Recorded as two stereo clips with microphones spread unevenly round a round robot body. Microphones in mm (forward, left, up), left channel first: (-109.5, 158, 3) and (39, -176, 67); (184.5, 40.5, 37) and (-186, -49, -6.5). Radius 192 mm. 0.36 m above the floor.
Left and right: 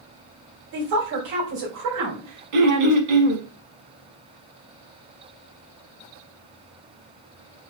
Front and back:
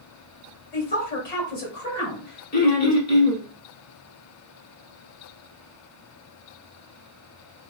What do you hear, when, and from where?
0.7 s a woman speaking: 55° right, 1.8 m
2.5 s throat clearing: 55° right, 0.9 m